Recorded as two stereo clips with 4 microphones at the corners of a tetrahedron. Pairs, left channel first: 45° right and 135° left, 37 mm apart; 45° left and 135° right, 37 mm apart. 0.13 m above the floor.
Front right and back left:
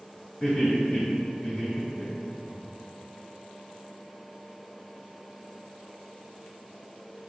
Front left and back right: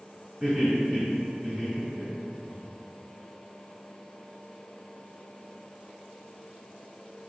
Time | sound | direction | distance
0.4 | laughter | 75° right | 1.5 m